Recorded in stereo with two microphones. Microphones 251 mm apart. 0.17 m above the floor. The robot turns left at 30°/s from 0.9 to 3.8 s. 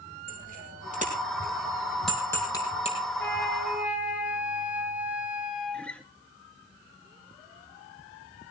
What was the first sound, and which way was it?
A bicycle bell, 35° right (ahead or behind).